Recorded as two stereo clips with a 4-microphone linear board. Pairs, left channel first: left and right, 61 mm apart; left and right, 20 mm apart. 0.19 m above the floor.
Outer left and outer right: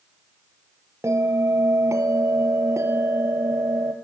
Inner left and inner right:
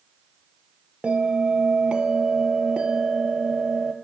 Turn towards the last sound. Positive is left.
turn(degrees=-55)  # may be behind; listen again after turning